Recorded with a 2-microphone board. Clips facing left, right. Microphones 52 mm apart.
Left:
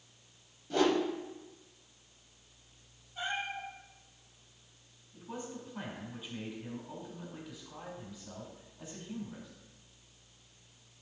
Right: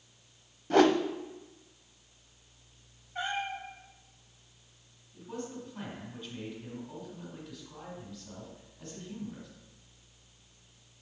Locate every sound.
0.7 s a whoosh: 60° right (ahead or behind), 0.5 m
3.1 s a cat meowing: 80° right, 3.5 m
5.1 s a man speaking: 10° left (ahead or behind), 3.5 m